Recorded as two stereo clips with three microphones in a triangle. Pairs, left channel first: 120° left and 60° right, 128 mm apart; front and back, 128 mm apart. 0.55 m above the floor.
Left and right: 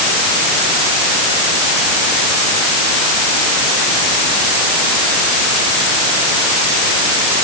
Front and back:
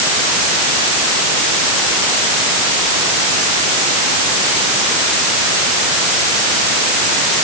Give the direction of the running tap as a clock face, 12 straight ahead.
I don't hear a running tap.